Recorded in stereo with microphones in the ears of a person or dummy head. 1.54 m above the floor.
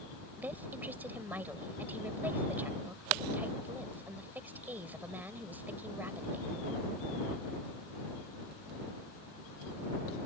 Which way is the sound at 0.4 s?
15° right (ahead or behind).